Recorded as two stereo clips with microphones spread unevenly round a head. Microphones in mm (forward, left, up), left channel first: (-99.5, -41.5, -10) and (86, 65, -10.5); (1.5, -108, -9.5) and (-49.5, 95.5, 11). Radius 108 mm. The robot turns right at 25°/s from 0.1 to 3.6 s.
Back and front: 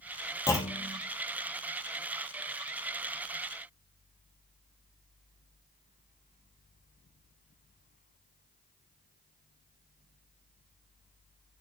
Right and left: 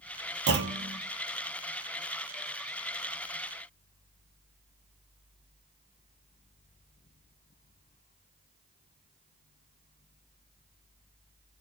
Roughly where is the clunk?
Behind left.